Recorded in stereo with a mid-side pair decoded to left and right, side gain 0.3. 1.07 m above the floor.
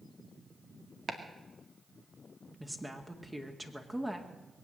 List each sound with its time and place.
1.1 s chopping: 50° right, 2 m
2.6 s a woman speaking: 10° right, 2 m